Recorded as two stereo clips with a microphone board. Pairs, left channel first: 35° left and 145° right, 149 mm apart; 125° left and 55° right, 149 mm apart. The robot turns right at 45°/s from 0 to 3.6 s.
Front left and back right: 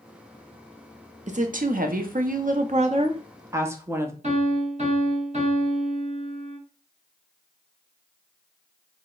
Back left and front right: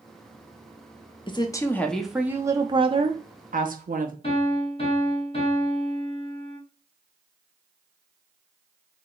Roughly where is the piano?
Behind.